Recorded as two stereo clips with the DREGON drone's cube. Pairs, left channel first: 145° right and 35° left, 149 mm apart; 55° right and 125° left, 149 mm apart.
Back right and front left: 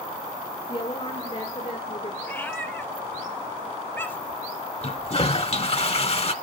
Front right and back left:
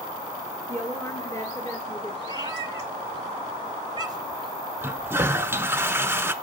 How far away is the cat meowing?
About 0.9 m.